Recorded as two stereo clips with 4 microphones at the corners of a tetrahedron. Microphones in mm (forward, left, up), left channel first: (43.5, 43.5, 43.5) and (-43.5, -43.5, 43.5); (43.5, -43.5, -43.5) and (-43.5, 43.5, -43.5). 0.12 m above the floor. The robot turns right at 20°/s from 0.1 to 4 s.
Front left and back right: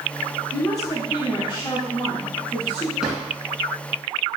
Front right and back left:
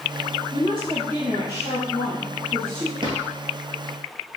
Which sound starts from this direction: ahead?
A woman speaking, at 0.5 s.